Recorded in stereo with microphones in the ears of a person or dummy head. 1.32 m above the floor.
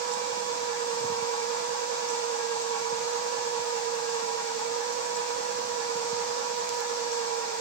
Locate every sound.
0.0 s a machine running: 70° right (ahead or behind), 1.5 m